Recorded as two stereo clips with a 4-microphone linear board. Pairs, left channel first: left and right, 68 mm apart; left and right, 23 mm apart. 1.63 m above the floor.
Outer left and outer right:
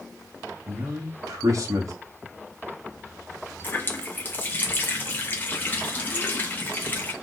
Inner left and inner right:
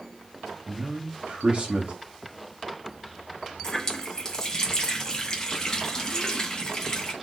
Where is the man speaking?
50° right (ahead or behind), 1.2 m.